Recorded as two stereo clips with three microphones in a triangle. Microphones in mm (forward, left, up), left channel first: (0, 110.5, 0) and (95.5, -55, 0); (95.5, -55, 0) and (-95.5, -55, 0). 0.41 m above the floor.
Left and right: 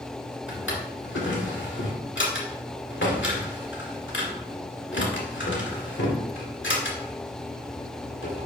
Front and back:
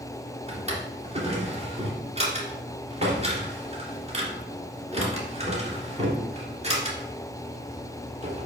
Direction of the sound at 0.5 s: 125° left.